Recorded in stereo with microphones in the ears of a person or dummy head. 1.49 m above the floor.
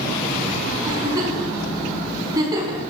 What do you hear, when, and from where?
0.8 s a giggle: 25° right (ahead or behind), 4 m